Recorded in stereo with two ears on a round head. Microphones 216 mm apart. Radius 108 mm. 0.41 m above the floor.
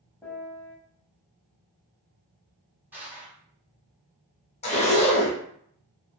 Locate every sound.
0.2 s a piano: 15° left (ahead or behind), 0.9 m
2.9 s crushing: 10° right (ahead or behind), 1.5 m
4.6 s a zipper: 30° left (ahead or behind), 0.8 m